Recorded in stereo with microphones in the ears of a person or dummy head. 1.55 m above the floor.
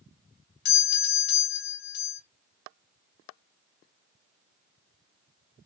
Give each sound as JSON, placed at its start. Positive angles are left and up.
{"t": 0.7, "sound": "a doorbell", "side_deg": 55, "distance_m": 1.0}